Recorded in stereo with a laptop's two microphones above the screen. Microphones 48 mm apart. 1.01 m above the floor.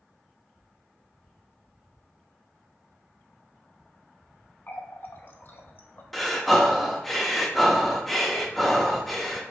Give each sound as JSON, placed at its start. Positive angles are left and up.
{"t": 4.7, "sound": "a running tap", "side_deg": 45, "distance_m": 0.6}
{"t": 6.1, "sound": "breathing", "side_deg": 5, "distance_m": 0.6}